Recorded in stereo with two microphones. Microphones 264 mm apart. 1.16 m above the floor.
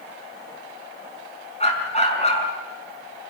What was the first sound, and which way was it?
A dog barking, 25° left (ahead or behind).